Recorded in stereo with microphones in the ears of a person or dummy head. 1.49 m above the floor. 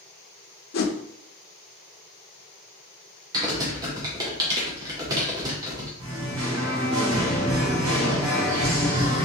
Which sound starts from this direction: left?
A whoosh, at 0.7 s.